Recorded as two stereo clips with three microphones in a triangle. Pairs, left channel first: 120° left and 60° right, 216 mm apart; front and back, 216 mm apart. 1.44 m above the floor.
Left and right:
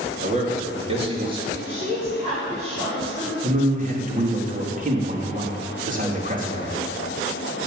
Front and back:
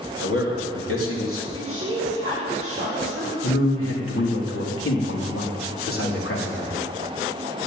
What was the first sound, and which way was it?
A man speaking, 5° right.